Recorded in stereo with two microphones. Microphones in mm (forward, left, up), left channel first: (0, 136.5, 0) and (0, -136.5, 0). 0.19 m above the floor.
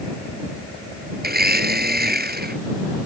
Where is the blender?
35° right (ahead or behind).